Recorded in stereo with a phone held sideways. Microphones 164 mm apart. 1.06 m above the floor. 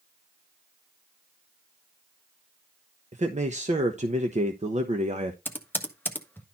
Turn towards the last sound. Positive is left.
turn(degrees=10)  # may be behind; listen again after turning